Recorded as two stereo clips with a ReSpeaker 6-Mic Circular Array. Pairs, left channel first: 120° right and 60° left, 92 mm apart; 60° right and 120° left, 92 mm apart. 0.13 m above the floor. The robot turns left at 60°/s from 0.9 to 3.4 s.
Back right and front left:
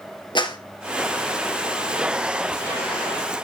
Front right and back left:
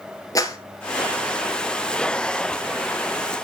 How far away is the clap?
About 1.7 m.